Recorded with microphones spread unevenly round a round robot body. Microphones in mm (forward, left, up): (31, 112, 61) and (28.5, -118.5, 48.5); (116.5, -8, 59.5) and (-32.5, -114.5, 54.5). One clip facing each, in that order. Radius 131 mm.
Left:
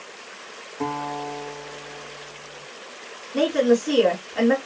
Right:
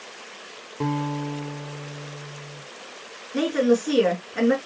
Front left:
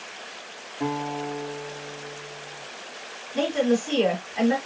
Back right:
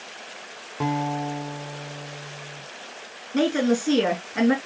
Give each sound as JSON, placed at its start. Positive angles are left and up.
{"t": 0.8, "sound": "a guitar", "azimuth_deg": -150, "distance_m": 1.9}
{"t": 3.3, "sound": "a woman speaking", "azimuth_deg": -165, "distance_m": 4.5}